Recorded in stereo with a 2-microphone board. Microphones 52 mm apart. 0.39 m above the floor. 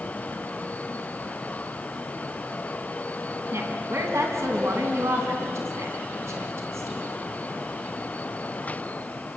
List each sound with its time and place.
3.5 s a woman speaking: 60° right (ahead or behind), 3.5 m